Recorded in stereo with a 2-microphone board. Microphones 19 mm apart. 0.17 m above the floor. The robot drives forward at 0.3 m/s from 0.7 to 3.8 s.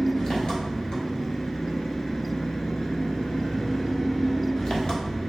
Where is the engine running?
50° left (ahead or behind), 1.3 m; by 5.3 s 60° left (ahead or behind), 1.1 m.